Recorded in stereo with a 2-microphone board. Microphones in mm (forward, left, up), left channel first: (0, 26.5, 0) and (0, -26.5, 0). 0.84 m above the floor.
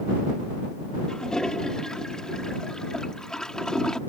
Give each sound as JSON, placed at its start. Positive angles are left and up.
{"t": 1.1, "sound": "a toilet flushing", "side_deg": 10}